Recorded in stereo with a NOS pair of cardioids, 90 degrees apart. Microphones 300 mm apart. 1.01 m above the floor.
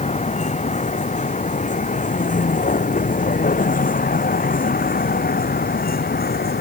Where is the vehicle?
25° left; by 6.6 s 30° left.